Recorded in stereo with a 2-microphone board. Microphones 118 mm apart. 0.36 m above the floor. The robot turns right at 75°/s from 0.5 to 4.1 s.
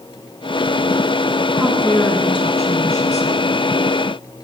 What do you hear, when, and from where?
1.6 s a woman speaking: 10° right, 3 m; by 3.5 s 135° left, 3 m